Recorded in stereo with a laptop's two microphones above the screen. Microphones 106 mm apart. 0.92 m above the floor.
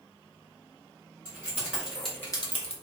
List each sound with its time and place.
1.2 s keys jangling: 25° right (ahead or behind), 1.9 m; by 2.7 s 75° left (ahead or behind), 0.7 m